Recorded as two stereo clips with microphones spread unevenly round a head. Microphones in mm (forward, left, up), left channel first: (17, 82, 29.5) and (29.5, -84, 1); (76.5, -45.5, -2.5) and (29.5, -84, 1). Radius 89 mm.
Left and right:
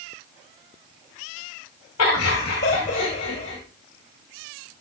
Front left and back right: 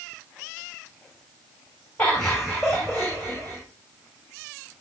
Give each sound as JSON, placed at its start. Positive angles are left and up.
{"t": 2.0, "sound": "laughter", "azimuth_deg": 120, "distance_m": 1.6}